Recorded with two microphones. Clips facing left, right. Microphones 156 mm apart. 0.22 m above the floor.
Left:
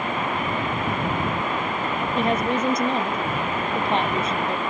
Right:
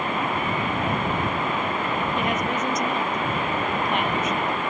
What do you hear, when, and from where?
2.1 s a woman speaking: 30° left (ahead or behind)